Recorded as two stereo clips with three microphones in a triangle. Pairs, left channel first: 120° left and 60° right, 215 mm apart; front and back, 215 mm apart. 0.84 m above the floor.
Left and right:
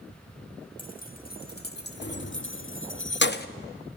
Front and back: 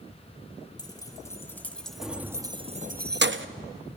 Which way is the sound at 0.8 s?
70° left.